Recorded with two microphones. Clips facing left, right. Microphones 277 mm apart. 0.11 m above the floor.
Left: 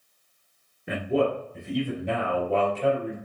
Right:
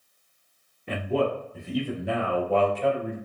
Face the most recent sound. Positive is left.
turn(degrees=-20)  # may be behind; listen again after turning